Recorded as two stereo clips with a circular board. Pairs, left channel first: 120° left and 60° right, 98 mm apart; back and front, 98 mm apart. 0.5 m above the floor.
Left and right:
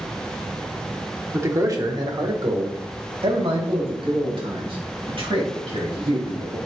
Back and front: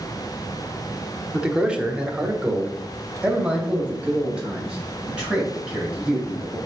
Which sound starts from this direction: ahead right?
A man speaking, at 1.3 s.